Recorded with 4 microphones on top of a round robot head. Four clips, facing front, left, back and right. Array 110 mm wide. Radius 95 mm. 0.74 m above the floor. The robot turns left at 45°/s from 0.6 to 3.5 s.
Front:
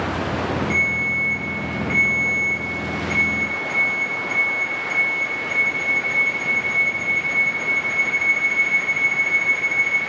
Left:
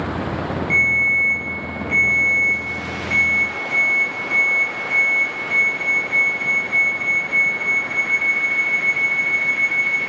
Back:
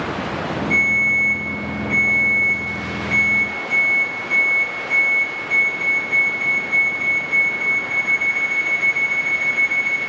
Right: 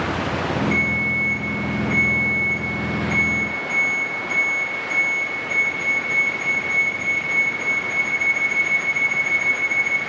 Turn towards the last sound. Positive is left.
turn(degrees=-50)